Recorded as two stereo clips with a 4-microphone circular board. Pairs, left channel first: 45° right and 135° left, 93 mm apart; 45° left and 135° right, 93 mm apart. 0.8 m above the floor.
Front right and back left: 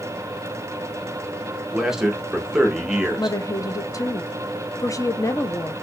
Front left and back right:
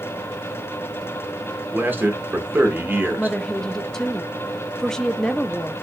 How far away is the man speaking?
About 0.9 m.